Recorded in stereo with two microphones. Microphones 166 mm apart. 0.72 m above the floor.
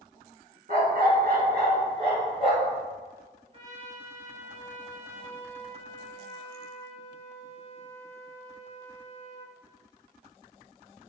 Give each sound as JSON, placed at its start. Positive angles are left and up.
{"t": 0.7, "sound": "a dog barking", "side_deg": -65, "distance_m": 1.7}
{"t": 3.5, "sound": "a trumpet", "side_deg": -45, "distance_m": 3.0}